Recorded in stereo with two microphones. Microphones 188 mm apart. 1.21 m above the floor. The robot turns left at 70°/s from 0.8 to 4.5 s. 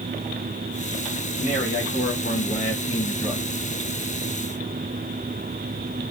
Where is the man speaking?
150° left, 2 m; by 3.4 s 5° left, 2 m.